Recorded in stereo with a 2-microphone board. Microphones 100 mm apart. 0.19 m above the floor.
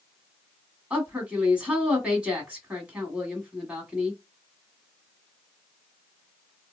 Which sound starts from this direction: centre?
A woman speaking, at 0.9 s.